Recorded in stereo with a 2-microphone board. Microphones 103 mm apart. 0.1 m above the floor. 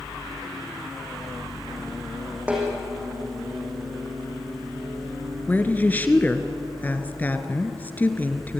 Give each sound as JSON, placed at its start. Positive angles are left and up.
{"t": 2.5, "sound": "a snare drum", "side_deg": -15, "distance_m": 6.5}
{"t": 5.5, "sound": "a woman speaking", "side_deg": 20, "distance_m": 1.5}